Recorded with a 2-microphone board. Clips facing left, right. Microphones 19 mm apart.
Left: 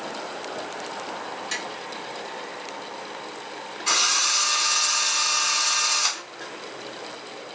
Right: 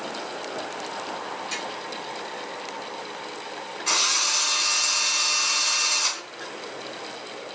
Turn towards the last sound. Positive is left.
turn(degrees=0)  # may be behind; listen again after turning